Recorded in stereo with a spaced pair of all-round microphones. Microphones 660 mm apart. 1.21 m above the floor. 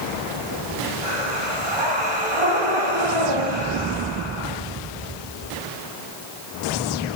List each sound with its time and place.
1.0 s breathing: 45° right (ahead or behind), 2.5 m